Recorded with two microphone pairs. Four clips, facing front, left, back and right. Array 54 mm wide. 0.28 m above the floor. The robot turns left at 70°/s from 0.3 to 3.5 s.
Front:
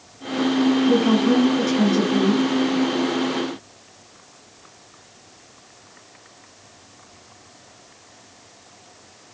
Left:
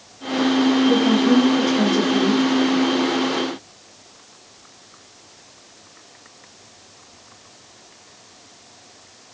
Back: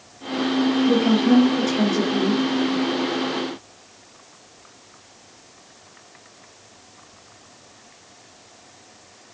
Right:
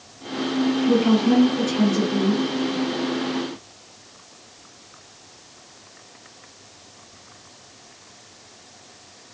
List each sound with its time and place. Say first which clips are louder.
0.9 s a woman speaking: left 2 dB, even; 155° right, 1.3 m; by 2.4 s 95° left, 1.3 m